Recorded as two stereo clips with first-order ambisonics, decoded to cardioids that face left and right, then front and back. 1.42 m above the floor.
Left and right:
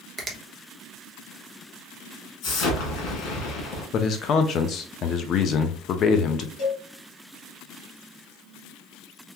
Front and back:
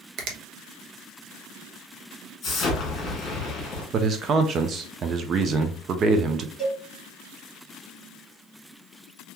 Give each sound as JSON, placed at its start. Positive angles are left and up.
{"t": 0.2, "sound": "a finger snap", "azimuth_deg": -165, "distance_m": 0.7}
{"t": 2.4, "sound": "an explosion", "azimuth_deg": 55, "distance_m": 1.6}
{"t": 3.9, "sound": "a man speaking", "azimuth_deg": 130, "distance_m": 0.5}
{"t": 6.6, "sound": "a cowbell", "azimuth_deg": 90, "distance_m": 2.5}